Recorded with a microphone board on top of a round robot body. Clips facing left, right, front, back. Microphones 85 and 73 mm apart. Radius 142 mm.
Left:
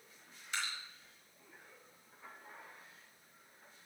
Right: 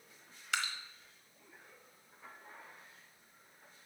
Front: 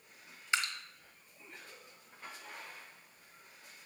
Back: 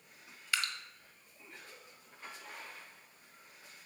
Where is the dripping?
70° right, 1.3 m.